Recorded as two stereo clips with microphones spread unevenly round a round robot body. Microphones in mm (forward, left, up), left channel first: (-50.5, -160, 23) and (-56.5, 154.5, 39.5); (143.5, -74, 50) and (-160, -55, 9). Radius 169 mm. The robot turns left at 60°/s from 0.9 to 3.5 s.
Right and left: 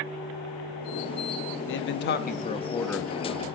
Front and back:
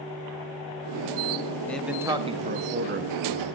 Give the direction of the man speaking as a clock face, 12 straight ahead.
3 o'clock.